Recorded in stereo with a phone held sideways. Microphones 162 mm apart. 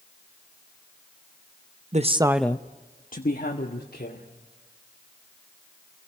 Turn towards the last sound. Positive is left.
turn(degrees=75)  # may be behind; listen again after turning